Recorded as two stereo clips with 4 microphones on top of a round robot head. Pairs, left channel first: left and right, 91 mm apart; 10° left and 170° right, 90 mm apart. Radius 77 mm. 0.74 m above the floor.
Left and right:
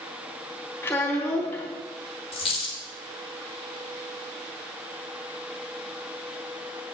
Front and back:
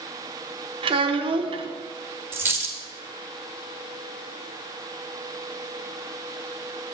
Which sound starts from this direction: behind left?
A dropped coin, at 2.3 s.